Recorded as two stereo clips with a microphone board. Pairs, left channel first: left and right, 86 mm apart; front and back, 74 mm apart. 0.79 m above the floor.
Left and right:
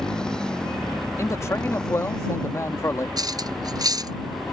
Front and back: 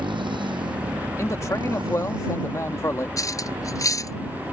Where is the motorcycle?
170° left.